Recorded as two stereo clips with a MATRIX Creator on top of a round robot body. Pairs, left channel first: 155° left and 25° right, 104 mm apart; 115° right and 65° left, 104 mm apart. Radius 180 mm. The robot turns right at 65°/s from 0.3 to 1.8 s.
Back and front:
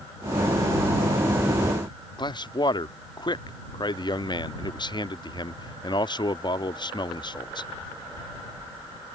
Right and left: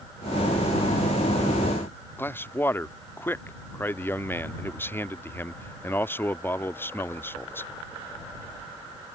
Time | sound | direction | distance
2.2 | a man speaking | 175° right | ?